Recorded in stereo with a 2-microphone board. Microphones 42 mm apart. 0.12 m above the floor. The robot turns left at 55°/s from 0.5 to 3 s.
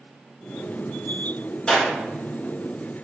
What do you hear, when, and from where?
1.7 s a clap: 20° left (ahead or behind), 1.5 m; by 1.9 s 15° left (ahead or behind), 1.5 m